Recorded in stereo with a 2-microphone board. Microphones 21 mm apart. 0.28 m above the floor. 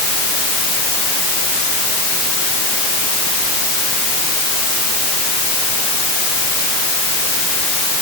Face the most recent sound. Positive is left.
No sound to turn to.